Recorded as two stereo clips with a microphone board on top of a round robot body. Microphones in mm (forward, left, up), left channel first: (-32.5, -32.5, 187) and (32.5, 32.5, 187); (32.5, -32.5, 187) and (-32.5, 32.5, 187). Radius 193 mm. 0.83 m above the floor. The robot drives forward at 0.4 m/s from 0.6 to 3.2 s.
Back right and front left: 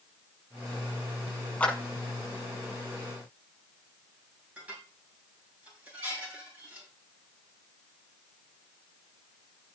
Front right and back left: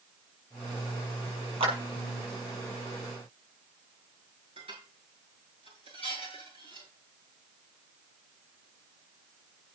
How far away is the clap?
About 6.5 m.